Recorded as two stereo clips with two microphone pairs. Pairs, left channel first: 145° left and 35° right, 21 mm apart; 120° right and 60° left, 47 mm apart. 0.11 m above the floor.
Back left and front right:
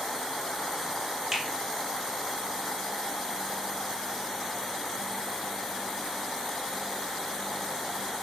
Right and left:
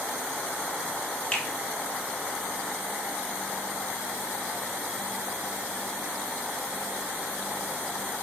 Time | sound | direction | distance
1.3 | a finger snap | 85° right | 1.0 m